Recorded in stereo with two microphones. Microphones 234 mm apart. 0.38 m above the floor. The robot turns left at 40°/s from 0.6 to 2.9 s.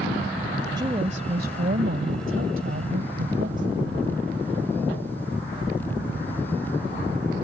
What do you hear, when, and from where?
0.8 s a woman speaking: 25° right; by 4.0 s 110° right